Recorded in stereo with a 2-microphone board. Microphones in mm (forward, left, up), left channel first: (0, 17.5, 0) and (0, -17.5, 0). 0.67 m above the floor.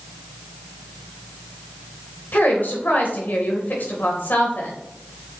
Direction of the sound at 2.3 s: 70° left (ahead or behind).